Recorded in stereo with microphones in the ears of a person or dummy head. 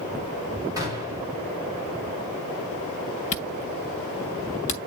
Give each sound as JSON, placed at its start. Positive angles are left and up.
{"t": 0.8, "sound": "a gunshot", "side_deg": -20, "distance_m": 4.5}
{"t": 3.3, "sound": "a camera shutter", "side_deg": 35, "distance_m": 1.0}